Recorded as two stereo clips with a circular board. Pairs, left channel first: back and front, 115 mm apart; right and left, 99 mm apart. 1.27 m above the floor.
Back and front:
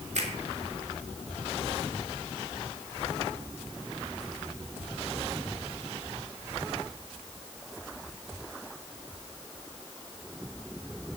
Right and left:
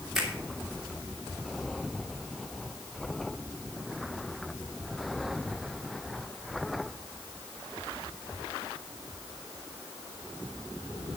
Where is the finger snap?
5° left, 3 m.